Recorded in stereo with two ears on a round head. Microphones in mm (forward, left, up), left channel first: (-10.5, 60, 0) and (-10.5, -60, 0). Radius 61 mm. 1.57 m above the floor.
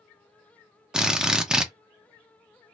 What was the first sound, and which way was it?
A drill, 5° right (ahead or behind).